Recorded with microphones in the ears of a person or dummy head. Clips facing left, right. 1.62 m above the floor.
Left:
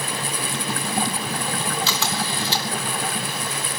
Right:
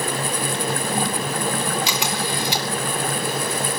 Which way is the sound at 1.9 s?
15° right (ahead or behind).